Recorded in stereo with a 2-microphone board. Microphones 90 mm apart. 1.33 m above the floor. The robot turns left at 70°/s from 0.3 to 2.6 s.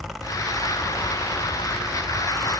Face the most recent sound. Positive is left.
No sound to turn to.